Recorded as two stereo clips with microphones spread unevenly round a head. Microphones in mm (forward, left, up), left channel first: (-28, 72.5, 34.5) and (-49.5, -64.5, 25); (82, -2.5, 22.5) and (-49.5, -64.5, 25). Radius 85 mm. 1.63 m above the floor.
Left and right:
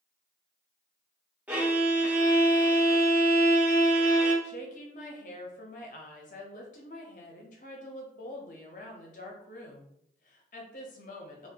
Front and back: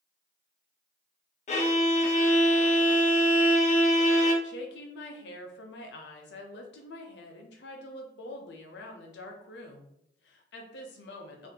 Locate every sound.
1.5 s a violin: 15° right, 0.6 m
4.4 s a woman speaking: 35° left, 0.6 m